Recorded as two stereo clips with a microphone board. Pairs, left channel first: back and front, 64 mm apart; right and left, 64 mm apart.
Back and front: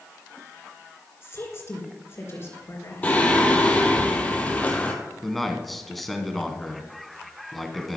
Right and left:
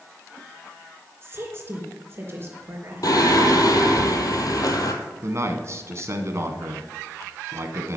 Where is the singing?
110° right, 1.5 m.